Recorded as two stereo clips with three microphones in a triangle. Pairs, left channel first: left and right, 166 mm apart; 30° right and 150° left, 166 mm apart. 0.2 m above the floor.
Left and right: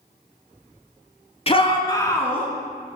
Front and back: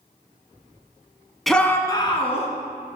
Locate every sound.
1.5 s a shout: 60° left, 1.3 m; by 2.5 s 10° left, 2 m